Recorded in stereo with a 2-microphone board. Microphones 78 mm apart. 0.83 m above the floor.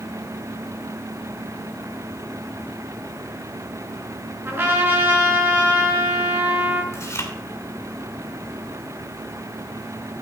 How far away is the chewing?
About 2.5 m.